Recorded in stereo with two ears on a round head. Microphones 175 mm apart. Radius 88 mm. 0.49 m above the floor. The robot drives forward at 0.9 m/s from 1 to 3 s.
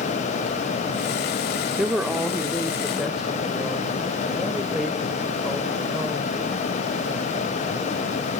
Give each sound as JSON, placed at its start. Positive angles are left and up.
{"t": 1.8, "sound": "a woman speaking", "side_deg": -5, "distance_m": 0.7}